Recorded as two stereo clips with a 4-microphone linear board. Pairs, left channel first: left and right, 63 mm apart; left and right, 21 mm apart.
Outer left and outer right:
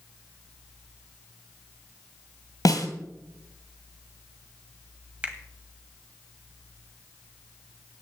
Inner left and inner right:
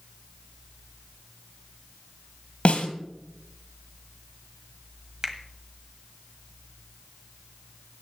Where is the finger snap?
20° right (ahead or behind), 1.4 m.